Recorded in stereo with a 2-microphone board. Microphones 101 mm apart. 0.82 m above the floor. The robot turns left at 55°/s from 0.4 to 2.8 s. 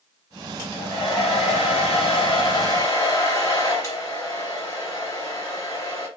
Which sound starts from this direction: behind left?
A hair dryer, at 0.6 s.